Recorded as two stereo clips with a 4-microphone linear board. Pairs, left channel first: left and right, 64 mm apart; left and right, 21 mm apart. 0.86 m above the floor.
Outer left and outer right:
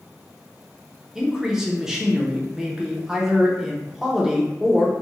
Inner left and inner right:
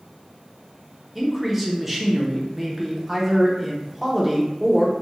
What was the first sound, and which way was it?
A man speaking, 10° right (ahead or behind).